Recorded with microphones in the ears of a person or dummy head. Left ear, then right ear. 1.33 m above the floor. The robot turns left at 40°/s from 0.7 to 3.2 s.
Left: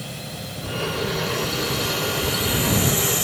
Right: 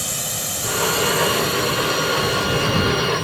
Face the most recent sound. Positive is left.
turn(degrees=130)